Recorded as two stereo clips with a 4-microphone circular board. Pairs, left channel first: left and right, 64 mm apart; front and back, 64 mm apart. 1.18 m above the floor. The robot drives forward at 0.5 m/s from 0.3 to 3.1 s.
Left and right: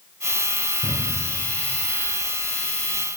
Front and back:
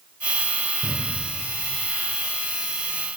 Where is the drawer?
105° right, 3 m.